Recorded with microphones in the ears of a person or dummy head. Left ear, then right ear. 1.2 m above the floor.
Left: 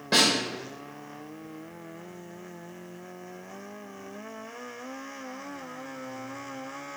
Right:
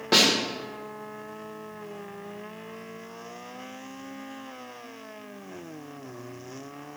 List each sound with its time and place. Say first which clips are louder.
0.1 s a snare drum: right 2 dB; 20° right (ahead or behind), 0.7 m